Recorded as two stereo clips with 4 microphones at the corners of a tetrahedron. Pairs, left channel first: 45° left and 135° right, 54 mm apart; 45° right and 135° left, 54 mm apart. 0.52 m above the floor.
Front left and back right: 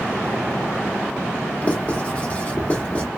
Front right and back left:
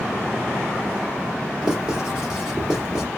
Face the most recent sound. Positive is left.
turn(degrees=65)